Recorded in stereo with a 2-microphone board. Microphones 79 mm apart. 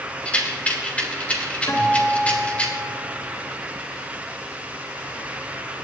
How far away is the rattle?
About 2.5 m.